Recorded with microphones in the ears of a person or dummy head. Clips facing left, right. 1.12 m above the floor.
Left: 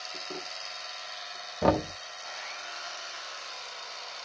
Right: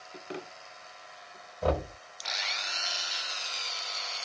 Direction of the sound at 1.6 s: 75° left (ahead or behind).